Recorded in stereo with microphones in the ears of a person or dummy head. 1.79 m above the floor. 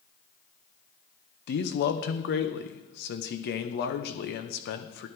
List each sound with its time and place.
1.5 s a man speaking: 55° left (ahead or behind), 1.2 m